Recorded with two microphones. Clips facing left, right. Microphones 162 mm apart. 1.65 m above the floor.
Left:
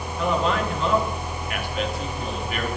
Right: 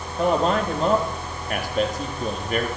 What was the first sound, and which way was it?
A man speaking, 40° right (ahead or behind).